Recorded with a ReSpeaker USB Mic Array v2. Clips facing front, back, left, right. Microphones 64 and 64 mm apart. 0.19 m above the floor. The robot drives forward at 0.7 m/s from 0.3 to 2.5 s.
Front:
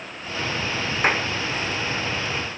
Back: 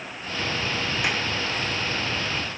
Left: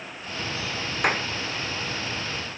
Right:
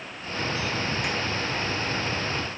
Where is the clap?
55° left.